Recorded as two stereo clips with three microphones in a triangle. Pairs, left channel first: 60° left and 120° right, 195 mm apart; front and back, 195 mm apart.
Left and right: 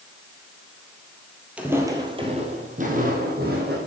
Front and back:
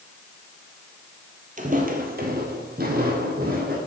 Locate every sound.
1.6 s footsteps: 160° left, 1.7 m; by 3.8 s 145° right, 3 m